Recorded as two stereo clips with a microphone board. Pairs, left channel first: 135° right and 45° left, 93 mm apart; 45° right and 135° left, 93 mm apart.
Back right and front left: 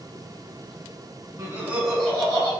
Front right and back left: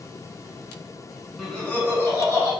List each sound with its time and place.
1.4 s laughter: 35° left, 1.2 m; by 2.5 s 90° right, 1.5 m